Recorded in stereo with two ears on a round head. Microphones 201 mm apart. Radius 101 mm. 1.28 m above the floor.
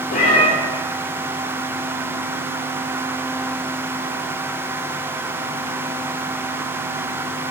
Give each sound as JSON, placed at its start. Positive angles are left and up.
{"t": 0.1, "sound": "a cat meowing", "side_deg": 35, "distance_m": 1.7}